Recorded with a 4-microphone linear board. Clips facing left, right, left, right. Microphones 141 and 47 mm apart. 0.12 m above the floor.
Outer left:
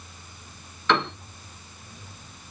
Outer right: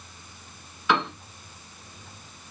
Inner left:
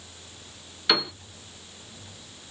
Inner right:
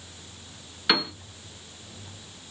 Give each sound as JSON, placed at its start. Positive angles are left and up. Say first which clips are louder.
{"t": 0.9, "sound": "a piano", "louder": "outer left 1 dB, even", "side_deg": -10, "distance_m": 1.6}